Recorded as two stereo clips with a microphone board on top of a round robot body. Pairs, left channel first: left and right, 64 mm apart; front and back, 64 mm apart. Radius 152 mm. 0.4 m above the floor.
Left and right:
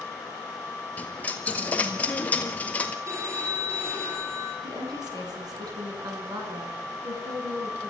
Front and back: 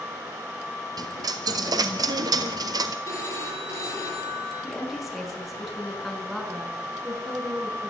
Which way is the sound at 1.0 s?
160° left.